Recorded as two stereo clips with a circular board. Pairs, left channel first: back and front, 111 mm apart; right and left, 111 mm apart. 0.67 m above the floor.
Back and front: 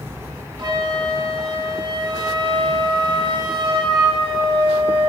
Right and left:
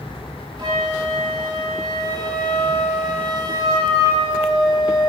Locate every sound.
0.6 s a flute: 45° left, 1.0 m